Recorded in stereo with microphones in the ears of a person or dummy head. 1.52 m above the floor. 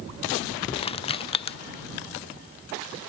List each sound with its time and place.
0.8 s crushing: 25° left (ahead or behind)